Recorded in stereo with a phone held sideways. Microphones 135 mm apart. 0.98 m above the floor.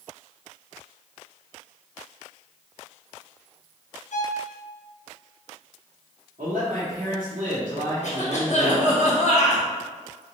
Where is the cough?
55° left (ahead or behind), 1.2 m.